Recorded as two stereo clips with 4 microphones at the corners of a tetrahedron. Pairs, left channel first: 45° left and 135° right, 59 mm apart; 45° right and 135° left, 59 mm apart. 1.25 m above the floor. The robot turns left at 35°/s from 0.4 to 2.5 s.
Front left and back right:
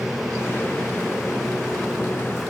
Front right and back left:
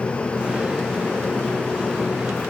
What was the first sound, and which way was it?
Only background noise.